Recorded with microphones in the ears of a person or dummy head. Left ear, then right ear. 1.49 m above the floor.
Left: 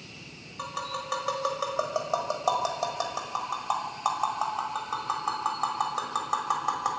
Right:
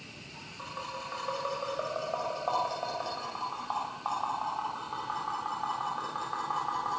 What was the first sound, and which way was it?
Tapping, 80° left.